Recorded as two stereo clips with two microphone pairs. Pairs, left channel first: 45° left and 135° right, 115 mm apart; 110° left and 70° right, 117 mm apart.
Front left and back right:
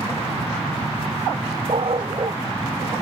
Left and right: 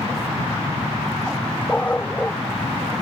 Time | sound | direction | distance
1.7 | a dog barking | 170° right | ?